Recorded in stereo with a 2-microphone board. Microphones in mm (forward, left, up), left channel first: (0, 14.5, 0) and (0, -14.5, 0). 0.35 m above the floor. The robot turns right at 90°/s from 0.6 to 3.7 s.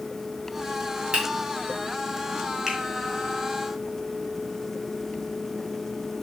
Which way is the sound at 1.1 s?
35° right (ahead or behind).